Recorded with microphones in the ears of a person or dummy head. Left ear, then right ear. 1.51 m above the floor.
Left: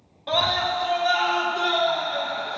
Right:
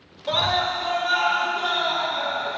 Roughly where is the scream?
Left.